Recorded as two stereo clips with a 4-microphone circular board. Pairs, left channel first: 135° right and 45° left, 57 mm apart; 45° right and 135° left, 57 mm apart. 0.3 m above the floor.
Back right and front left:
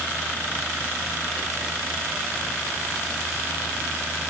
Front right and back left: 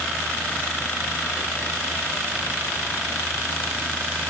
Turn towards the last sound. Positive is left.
No sound to turn to.